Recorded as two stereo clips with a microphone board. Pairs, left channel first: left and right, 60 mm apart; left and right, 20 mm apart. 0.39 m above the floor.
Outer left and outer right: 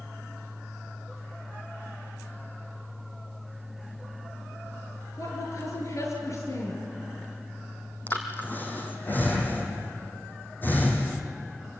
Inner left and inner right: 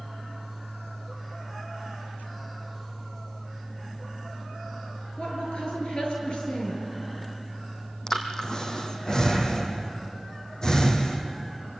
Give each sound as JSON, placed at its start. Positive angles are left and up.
{"t": 5.2, "sound": "a woman speaking", "side_deg": 55, "distance_m": 7.5}
{"t": 8.1, "sound": "breathing", "side_deg": 30, "distance_m": 3.0}